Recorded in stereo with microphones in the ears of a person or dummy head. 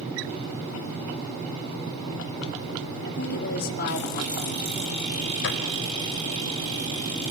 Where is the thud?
70° left (ahead or behind), 3.5 m.